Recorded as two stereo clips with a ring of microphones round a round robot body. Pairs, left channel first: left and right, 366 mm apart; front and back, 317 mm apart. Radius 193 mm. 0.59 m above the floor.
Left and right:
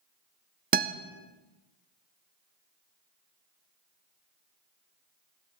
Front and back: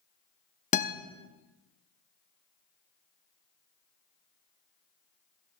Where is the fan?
No fan in this recording.